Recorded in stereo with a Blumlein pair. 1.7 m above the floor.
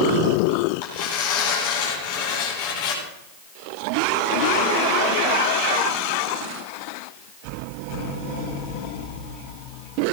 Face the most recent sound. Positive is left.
turn(degrees=50)